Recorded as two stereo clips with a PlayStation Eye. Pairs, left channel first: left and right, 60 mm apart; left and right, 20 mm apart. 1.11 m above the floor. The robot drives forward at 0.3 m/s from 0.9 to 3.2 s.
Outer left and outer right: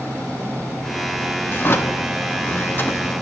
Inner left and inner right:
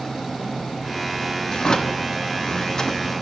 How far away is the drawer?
About 0.5 m.